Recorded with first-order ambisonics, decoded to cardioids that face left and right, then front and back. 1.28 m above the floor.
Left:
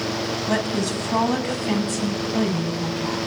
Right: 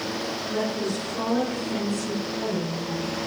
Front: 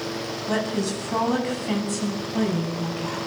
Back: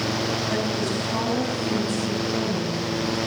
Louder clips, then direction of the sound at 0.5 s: Left 3 dB, back 1 dB; 75° left.